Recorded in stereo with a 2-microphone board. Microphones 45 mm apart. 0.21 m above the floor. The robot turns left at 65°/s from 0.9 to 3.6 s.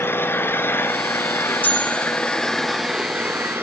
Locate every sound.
0.0 s an engine running: 115° left, 1.8 m; by 3.6 s 60° right, 1.8 m
1.6 s a bell: 40° left, 4.5 m; by 2.3 s 5° right, 4.5 m